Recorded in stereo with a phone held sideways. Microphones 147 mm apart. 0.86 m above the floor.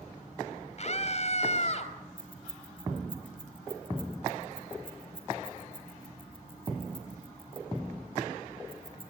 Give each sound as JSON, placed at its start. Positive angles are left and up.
{"t": 0.8, "sound": "a scream", "side_deg": 50, "distance_m": 4.5}
{"t": 2.2, "sound": "keys jangling", "side_deg": 40, "distance_m": 3.5}